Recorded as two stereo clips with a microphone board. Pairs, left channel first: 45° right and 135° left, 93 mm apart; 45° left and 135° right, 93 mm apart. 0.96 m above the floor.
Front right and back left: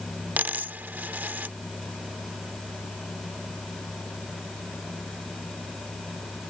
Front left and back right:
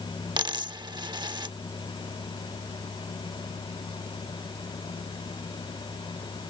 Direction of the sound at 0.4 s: 155° right.